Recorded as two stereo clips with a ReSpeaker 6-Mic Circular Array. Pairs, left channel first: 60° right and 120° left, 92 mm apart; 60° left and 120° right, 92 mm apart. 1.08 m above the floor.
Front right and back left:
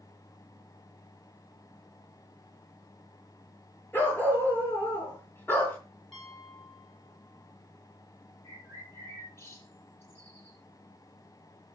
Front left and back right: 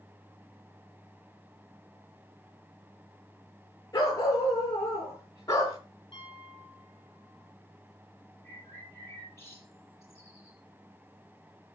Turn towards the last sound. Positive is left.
turn(degrees=0)